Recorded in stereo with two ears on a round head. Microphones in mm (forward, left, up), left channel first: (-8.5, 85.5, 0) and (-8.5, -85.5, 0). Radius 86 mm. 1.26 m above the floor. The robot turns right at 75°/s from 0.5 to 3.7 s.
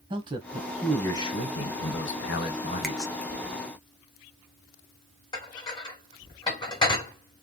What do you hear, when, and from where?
0.1 s a man speaking: 30° right, 1.2 m; by 3.1 s 170° left, 1.2 m
2.8 s a finger snap: centre (ahead or behind), 0.9 m; by 3.0 s 5° left (ahead or behind), 0.9 m
5.3 s dishes clattering: 25° left (ahead or behind), 2.0 m